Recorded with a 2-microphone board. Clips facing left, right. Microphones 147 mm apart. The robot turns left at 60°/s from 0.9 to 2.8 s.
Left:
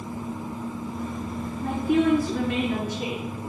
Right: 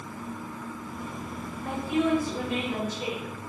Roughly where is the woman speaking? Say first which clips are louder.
Left 5 dB; behind left.